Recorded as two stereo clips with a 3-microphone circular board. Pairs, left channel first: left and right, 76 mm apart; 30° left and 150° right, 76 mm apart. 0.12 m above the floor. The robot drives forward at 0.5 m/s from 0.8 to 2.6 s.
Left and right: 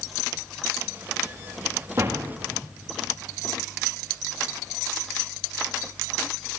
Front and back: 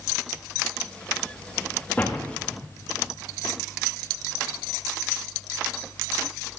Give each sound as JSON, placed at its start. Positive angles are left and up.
{"t": 2.0, "sound": "a door slam", "azimuth_deg": -40, "distance_m": 6.0}